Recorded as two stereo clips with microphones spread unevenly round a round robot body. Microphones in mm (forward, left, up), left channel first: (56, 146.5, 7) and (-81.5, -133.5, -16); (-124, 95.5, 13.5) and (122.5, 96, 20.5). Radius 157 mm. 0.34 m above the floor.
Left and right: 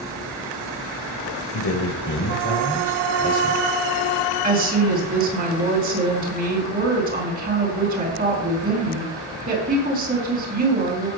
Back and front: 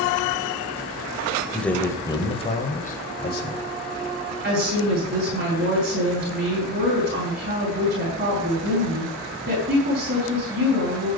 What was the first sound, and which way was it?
A man speaking, 95° left.